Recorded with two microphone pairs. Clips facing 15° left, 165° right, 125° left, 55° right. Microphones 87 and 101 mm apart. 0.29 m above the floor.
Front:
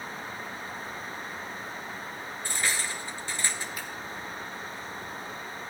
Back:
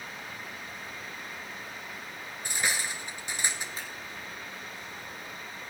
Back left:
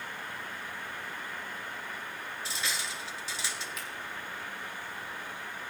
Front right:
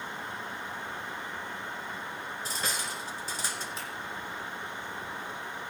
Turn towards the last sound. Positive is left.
turn(degrees=-110)